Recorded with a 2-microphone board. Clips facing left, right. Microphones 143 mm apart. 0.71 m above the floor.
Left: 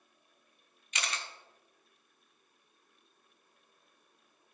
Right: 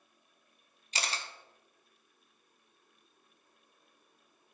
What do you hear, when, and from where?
0.9 s a camera shutter: 35° right (ahead or behind), 0.6 m